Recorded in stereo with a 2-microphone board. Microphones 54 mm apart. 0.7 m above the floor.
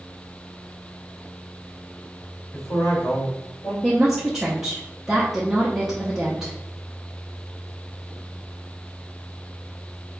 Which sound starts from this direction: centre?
A woman speaking, at 3.8 s.